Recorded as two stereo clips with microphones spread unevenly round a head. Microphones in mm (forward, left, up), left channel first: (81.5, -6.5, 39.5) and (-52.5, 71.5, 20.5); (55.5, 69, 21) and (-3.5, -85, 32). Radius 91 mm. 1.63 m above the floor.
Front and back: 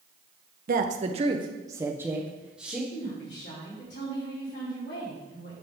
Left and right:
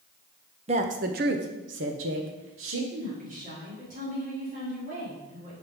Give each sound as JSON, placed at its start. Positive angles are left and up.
{"t": 0.7, "sound": "a woman speaking", "azimuth_deg": -170, "distance_m": 0.9}
{"t": 2.9, "sound": "a woman speaking", "azimuth_deg": -70, "distance_m": 4.5}